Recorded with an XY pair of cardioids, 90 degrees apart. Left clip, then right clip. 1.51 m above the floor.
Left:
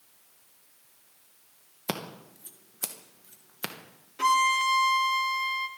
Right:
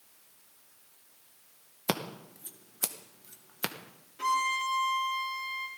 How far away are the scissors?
About 1.8 m.